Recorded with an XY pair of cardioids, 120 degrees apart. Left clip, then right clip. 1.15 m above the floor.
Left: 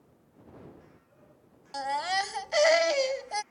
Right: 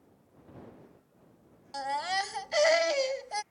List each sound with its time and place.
1.7 s a baby crying: 15° left